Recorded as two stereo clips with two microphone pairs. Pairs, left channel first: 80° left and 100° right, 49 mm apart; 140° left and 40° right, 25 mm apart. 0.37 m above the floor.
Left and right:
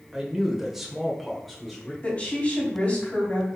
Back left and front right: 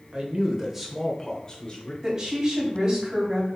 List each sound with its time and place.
0.1 s a man speaking: 25° right, 1.0 m; by 1.9 s 165° left, 1.1 m
2.0 s a woman speaking: 10° left, 2.5 m